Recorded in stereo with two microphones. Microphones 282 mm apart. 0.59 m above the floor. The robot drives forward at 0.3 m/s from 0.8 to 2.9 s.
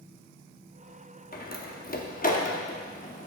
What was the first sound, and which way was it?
A door slam, 30° left (ahead or behind).